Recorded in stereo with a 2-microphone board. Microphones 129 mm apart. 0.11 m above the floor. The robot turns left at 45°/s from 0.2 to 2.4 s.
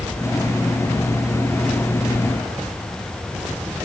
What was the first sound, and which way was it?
Only background noise.